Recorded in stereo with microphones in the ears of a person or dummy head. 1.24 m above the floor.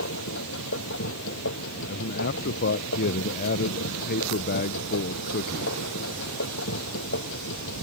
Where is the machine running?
70° left (ahead or behind).